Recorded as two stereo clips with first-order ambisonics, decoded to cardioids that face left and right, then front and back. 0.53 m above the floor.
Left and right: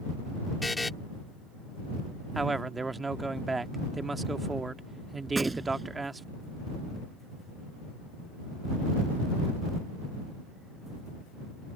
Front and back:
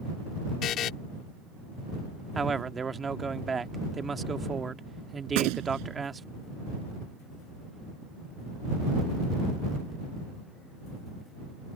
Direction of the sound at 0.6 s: 10° left.